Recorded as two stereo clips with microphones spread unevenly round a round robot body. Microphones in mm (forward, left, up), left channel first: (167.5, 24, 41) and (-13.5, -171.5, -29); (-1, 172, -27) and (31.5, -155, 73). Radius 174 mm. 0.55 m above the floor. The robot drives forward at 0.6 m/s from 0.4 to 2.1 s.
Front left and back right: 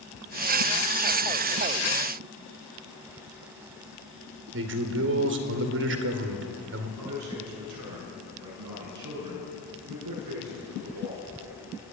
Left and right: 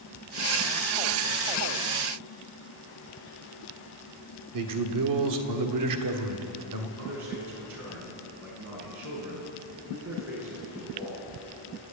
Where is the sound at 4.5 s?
120° right, 2 m.